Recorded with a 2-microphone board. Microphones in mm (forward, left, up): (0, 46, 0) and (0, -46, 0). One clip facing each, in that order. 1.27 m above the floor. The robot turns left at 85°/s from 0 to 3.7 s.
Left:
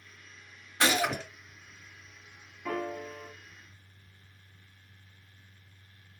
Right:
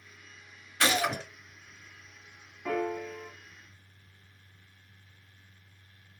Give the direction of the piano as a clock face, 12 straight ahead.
6 o'clock.